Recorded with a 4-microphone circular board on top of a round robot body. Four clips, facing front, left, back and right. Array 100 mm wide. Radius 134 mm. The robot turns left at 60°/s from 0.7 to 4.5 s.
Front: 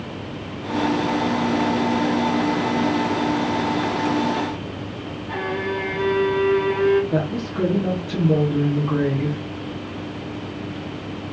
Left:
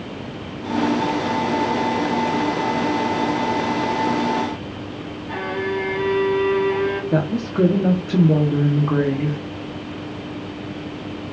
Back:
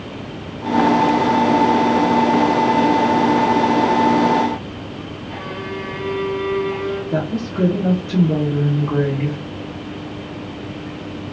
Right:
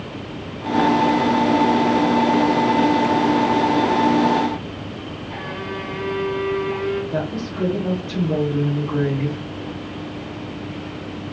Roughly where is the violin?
Ahead left.